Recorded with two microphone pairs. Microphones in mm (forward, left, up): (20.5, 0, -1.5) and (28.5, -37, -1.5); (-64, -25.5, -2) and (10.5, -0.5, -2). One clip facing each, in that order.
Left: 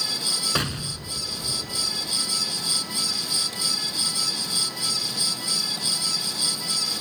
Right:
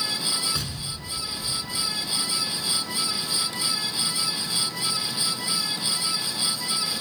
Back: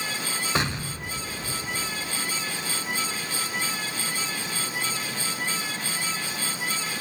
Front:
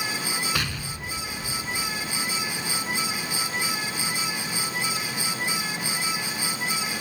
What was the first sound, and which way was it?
An explosion, 140° left.